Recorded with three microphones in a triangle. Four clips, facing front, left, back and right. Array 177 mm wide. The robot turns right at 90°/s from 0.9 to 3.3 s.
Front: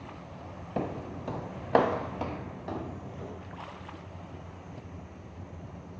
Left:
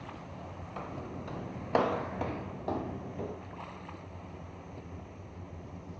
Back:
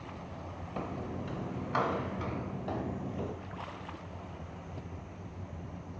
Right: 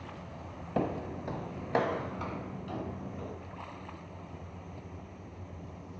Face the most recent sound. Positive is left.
turn(degrees=145)